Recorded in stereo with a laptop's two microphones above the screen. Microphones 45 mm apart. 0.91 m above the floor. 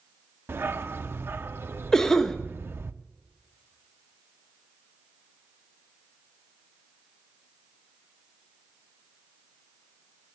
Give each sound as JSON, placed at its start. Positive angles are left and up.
{"t": 0.5, "sound": "a dog barking", "side_deg": -55, "distance_m": 0.5}
{"t": 1.9, "sound": "a cough", "side_deg": 10, "distance_m": 1.0}